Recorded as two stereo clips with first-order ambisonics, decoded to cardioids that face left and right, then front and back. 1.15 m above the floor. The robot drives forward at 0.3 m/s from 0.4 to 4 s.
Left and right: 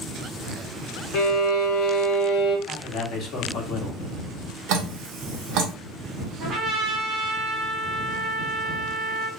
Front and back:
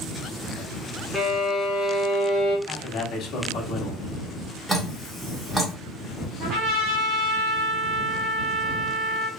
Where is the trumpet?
145° right, 0.8 m.